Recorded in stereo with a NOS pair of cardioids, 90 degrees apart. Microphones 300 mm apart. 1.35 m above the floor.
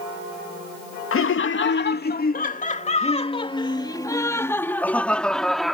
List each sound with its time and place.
1.1 s laughter: 45° left; by 5.7 s straight ahead